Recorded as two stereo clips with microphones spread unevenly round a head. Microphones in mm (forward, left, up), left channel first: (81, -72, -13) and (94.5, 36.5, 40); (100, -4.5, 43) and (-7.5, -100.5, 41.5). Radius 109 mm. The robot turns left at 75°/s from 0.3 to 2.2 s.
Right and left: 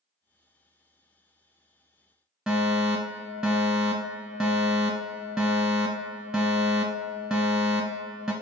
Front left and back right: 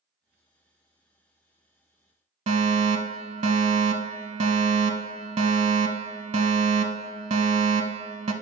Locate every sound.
2.5 s a fire alarm: 175° right, 0.8 m